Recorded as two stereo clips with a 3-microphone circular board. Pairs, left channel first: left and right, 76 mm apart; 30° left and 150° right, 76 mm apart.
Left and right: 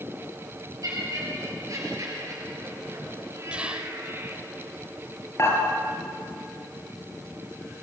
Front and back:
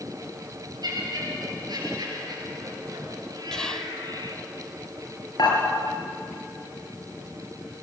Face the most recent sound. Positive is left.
turn(degrees=40)